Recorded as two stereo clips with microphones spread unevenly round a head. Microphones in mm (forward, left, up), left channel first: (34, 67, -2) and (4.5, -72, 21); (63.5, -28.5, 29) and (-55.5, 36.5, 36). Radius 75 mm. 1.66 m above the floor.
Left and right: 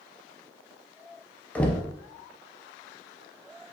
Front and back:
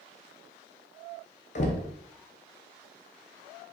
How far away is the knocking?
About 0.6 m.